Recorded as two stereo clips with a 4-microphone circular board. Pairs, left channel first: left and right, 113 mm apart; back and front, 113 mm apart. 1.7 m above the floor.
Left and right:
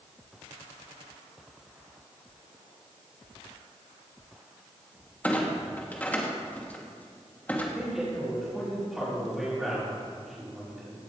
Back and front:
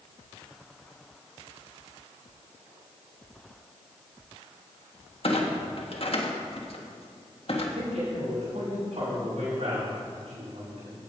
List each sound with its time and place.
5.2 s a clunk: 165° left, 1.6 m
7.8 s a man speaking: 5° right, 5 m